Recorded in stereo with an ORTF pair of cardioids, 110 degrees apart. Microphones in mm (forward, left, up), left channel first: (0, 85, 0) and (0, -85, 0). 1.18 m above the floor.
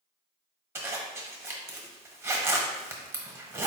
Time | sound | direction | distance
0.8 | a zipper | 15° right | 1.1 m